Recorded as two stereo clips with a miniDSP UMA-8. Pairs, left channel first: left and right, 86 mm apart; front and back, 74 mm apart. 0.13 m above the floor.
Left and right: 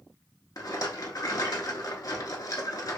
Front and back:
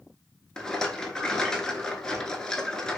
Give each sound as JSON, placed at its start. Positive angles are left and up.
{"t": 0.6, "sound": "a rattle", "azimuth_deg": 75, "distance_m": 0.7}